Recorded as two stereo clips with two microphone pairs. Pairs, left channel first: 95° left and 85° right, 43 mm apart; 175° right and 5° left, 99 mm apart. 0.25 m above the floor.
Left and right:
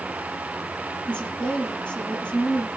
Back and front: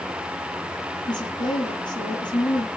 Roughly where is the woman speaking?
Behind left.